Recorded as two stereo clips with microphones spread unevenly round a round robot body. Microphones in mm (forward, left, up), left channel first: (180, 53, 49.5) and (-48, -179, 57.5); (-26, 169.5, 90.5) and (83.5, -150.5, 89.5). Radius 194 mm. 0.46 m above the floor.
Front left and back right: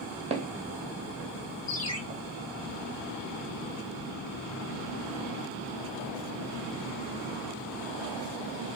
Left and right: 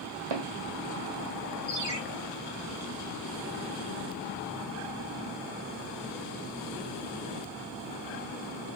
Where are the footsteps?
65° right, 0.9 m; by 2.2 s 155° left, 1.5 m.